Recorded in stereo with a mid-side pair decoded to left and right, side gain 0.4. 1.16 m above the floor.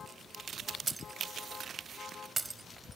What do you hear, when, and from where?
0.9 s breaking glass: 20° right